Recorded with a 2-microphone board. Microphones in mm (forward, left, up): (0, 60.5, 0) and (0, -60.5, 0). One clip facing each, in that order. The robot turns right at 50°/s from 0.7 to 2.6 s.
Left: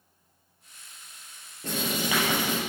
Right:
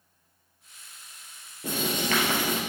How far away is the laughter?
No laughter in this recording.